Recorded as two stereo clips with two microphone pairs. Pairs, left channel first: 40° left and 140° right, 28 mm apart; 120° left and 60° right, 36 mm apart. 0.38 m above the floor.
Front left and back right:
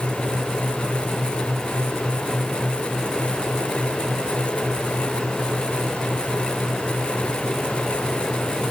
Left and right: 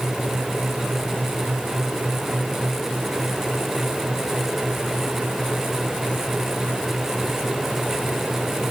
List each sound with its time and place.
Only background noise.